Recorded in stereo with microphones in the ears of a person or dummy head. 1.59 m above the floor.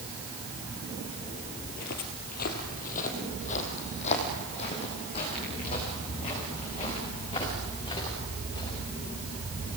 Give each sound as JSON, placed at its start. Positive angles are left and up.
{"t": 1.6, "sound": "footsteps", "side_deg": 50, "distance_m": 2.5}